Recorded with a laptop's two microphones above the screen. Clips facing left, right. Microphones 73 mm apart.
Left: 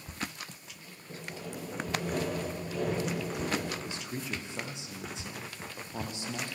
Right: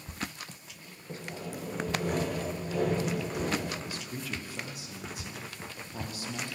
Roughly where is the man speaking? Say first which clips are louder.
Left 1 dB; left.